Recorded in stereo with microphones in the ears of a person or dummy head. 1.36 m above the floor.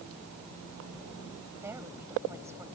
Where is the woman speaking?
5° right (ahead or behind).